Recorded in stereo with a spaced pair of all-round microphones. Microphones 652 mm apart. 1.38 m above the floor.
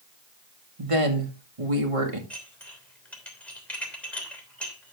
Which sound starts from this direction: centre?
Dishes clattering, at 2.3 s.